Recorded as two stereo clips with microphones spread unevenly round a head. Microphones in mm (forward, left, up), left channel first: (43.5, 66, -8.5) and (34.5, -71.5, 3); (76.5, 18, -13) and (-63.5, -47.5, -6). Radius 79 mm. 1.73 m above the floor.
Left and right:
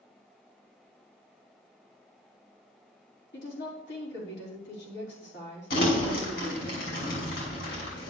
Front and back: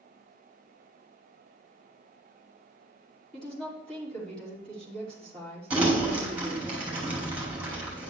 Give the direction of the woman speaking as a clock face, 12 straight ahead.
8 o'clock.